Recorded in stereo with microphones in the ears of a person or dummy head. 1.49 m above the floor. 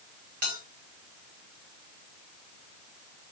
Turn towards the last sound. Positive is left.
turn(degrees=-55)  # may be behind; listen again after turning